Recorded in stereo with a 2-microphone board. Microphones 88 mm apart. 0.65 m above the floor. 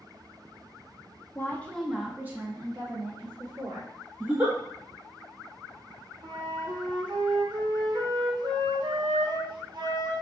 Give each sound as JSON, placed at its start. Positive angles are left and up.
{"t": 1.4, "sound": "a woman speaking", "side_deg": 25, "distance_m": 0.6}
{"t": 4.2, "sound": "a giggle", "side_deg": -15, "distance_m": 0.8}
{"t": 6.2, "sound": "a flute", "side_deg": -55, "distance_m": 0.6}